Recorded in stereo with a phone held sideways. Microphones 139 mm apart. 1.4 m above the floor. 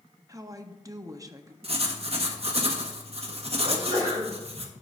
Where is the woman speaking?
25° right (ahead or behind), 0.7 m.